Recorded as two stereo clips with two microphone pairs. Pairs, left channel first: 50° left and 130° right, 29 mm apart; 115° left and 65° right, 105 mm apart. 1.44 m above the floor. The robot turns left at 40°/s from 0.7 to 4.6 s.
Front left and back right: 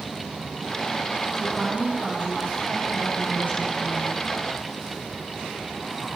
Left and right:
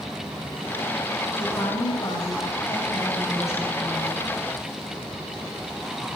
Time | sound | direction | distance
1.3 | a woman speaking | 140° left | 8 m